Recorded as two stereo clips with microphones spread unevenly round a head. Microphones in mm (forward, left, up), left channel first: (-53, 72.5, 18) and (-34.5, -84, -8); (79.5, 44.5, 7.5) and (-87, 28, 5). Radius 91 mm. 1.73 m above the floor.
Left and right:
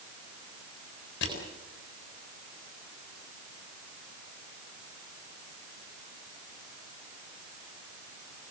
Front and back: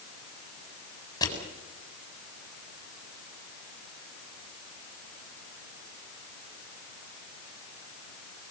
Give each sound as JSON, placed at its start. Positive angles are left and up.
{"t": 1.2, "sound": "crushing", "azimuth_deg": 75, "distance_m": 7.5}